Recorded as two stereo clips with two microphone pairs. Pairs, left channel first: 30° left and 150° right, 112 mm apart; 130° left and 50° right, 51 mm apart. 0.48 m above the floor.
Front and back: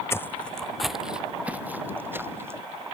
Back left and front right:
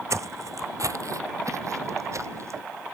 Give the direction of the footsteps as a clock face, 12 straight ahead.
1 o'clock.